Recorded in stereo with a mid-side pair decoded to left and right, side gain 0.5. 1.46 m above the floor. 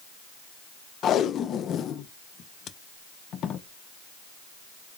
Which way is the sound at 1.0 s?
60° left.